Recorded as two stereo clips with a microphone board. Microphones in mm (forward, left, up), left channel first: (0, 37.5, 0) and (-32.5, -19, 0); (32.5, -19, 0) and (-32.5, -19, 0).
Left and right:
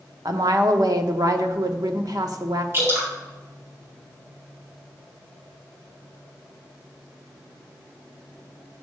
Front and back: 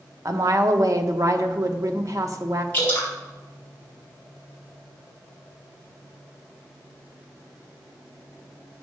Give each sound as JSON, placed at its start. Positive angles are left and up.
{"t": 0.2, "sound": "a woman speaking", "azimuth_deg": -140, "distance_m": 1.0}
{"t": 2.7, "sound": "dripping", "azimuth_deg": -65, "distance_m": 4.0}